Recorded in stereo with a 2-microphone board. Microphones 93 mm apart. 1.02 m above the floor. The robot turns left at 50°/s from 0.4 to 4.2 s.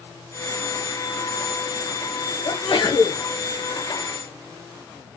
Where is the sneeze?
90° left, 1.1 m; by 3.2 s 50° left, 1.1 m.